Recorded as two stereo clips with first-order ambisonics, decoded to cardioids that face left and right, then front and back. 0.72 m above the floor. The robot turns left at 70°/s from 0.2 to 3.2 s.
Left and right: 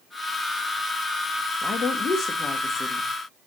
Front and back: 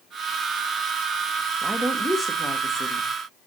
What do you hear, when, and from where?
1.6 s a woman speaking: 110° left, 0.7 m; by 3.5 s straight ahead, 0.7 m